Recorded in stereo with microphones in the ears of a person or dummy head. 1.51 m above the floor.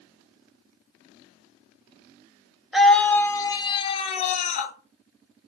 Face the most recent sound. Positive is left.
turn(degrees=40)  # may be behind; listen again after turning